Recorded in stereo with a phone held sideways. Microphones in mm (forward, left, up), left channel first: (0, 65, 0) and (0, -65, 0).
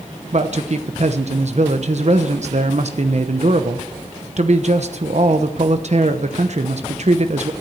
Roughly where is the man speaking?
Right.